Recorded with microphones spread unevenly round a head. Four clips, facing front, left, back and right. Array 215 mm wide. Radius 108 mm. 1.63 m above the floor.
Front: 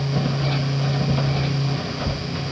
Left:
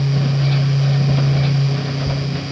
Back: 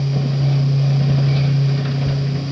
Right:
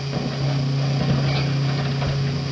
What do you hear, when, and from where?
Only background noise.